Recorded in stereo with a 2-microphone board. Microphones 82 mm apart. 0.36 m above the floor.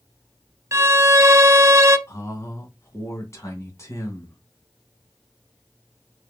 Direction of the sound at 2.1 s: 35° left (ahead or behind).